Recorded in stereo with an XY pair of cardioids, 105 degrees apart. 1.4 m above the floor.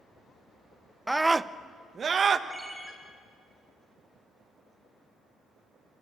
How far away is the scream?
About 0.6 m.